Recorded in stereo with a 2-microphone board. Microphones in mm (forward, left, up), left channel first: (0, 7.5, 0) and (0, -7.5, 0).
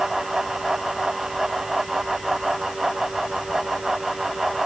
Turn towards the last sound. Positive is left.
No sound to turn to.